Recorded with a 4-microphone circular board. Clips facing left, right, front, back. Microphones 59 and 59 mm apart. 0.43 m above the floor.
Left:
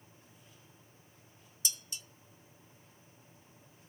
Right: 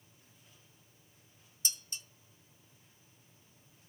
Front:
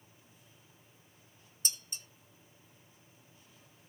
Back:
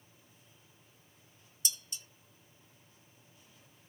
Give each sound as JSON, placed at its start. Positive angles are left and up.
{"t": 1.6, "sound": "dishes clattering", "azimuth_deg": -45, "distance_m": 1.2}